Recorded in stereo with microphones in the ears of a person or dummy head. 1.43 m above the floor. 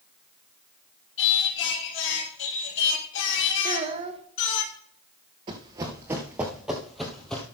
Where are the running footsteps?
15° right (ahead or behind), 1.4 m; by 7.4 s 5° left (ahead or behind), 2 m.